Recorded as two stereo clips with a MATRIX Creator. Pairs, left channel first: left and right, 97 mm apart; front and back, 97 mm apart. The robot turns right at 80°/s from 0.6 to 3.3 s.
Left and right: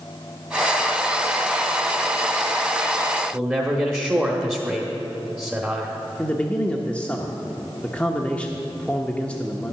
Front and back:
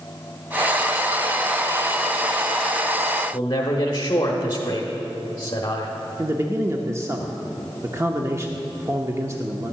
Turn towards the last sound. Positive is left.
turn(degrees=155)